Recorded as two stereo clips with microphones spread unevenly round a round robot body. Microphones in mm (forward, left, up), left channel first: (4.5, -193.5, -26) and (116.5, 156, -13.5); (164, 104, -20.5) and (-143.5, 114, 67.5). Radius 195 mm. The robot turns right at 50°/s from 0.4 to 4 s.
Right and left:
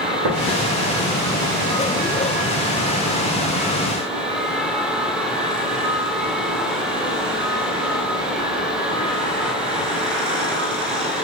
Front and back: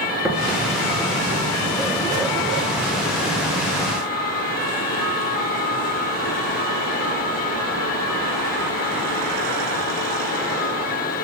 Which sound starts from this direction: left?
Tapping, at 0.2 s.